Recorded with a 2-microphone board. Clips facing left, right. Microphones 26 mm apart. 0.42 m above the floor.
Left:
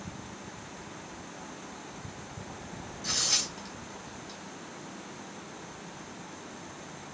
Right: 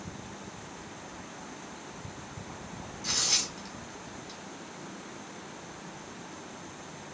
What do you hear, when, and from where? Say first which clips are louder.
3.0 s tearing paper: even; 10° right (ahead or behind), 1.4 m